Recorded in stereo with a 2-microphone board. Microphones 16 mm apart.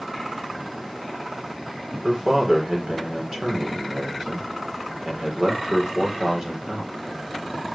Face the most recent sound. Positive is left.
turn(degrees=-35)  # may be behind; listen again after turning